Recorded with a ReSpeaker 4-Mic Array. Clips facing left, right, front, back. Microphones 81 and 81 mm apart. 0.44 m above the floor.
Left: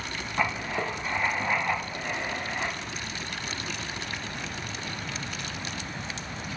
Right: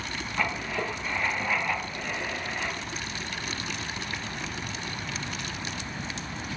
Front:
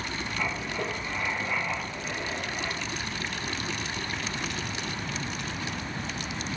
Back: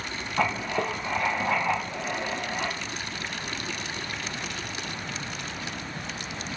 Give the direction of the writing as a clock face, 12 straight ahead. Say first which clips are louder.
Left 2 dB, back 7 dB; 7 o'clock.